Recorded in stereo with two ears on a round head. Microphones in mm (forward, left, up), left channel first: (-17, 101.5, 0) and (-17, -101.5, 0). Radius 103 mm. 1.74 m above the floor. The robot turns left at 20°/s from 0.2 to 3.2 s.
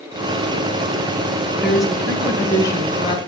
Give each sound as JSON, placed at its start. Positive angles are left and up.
{"t": 1.6, "sound": "a woman speaking", "azimuth_deg": -175, "distance_m": 1.3}